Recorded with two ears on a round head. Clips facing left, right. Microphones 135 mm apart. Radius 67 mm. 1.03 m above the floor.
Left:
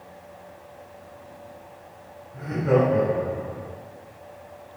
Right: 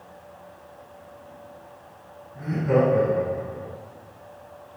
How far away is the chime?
No chime in this recording.